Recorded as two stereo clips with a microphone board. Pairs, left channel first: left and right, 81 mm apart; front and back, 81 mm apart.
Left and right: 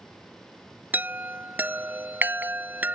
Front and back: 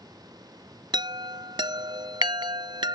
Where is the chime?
160° right.